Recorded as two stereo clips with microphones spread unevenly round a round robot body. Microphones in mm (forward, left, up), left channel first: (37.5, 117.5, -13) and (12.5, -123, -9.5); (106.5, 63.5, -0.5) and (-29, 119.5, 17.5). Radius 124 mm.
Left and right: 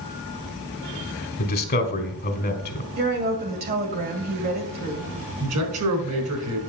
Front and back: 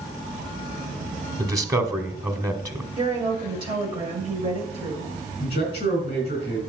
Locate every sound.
1.4 s a man speaking: 95° left, 1.7 m
3.0 s a woman speaking: 140° right, 2 m
5.4 s a man speaking: 85° right, 4 m